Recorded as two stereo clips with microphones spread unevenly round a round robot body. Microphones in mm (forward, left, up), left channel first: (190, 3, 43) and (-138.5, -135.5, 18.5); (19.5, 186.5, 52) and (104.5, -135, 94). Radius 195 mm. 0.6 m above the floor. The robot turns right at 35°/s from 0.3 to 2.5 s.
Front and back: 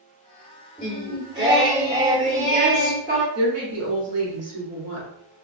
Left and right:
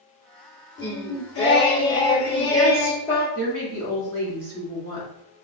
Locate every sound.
0.8 s singing: 115° left, 1.6 m; by 3.2 s 175° left, 1.6 m
3.4 s a woman speaking: 125° right, 1.4 m